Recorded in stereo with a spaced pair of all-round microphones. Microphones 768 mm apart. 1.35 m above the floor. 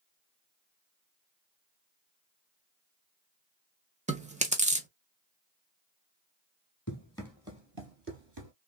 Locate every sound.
4.1 s chewing: 10° right (ahead or behind), 0.6 m
6.9 s running footsteps: 15° left (ahead or behind), 1.4 m; by 8.5 s 35° right (ahead or behind), 1.7 m